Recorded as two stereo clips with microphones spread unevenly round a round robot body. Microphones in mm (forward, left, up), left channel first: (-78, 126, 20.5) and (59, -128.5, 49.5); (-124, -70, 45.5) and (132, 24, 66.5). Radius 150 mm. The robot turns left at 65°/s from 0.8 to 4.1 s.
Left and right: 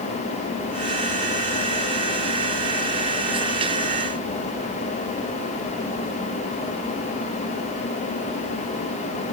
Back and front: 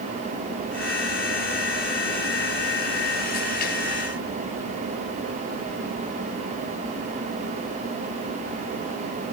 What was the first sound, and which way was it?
Only background noise.